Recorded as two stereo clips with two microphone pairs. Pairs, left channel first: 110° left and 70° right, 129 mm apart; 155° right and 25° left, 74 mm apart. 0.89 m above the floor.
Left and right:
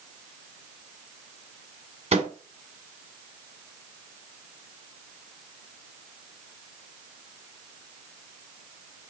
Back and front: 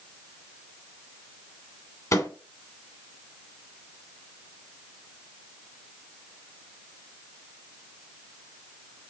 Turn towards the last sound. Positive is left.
turn(degrees=-105)